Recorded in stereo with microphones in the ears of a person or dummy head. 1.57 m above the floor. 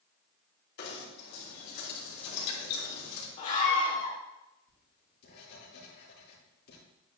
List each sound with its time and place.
0.8 s knocking: 55° left (ahead or behind), 3 m
3.4 s a scream: 40° left (ahead or behind), 2.5 m
4.7 s writing: 60° left (ahead or behind), 3 m